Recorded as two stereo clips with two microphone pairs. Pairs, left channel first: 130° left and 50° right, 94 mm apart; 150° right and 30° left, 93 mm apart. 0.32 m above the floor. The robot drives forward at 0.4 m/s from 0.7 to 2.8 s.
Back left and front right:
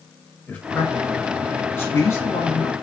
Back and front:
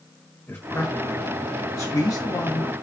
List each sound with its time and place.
0.5 s a man speaking: straight behind, 1.0 m